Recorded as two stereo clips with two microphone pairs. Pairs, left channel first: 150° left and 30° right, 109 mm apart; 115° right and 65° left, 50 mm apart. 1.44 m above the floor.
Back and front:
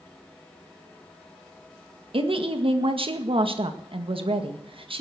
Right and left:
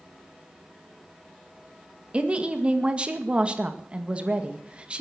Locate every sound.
2.1 s a woman speaking: straight ahead, 1.9 m